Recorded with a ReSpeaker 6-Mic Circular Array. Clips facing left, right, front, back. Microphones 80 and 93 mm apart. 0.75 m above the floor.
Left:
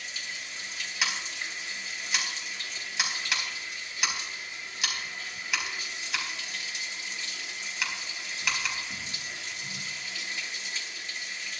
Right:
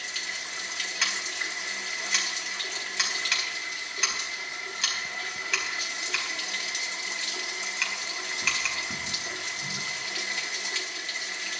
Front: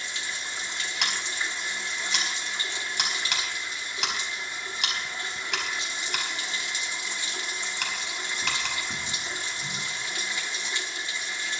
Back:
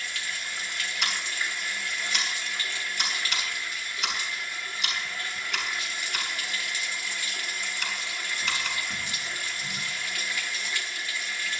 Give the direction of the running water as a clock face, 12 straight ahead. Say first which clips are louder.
Right 3 dB, even; 2 o'clock.